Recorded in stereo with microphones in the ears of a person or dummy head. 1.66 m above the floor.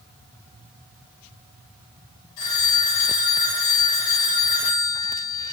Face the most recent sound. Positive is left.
turn(degrees=75)  # may be behind; listen again after turning